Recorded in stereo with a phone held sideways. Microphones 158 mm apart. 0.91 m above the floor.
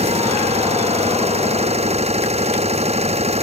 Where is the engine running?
40° right (ahead or behind).